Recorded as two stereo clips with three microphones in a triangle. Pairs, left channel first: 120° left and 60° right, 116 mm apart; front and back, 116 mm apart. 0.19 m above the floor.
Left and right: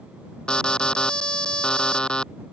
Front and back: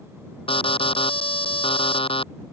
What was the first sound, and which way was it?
An alarm, 40° left.